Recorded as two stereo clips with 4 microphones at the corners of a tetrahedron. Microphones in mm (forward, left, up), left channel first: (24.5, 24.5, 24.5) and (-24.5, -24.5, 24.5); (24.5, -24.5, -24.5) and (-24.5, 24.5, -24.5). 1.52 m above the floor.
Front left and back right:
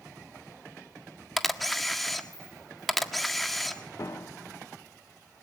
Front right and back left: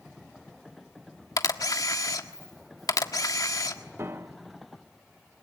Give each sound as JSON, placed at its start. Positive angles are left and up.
{"t": 1.4, "sound": "a camera shutter", "azimuth_deg": -45, "distance_m": 1.5}
{"t": 4.0, "sound": "a piano", "azimuth_deg": 85, "distance_m": 1.0}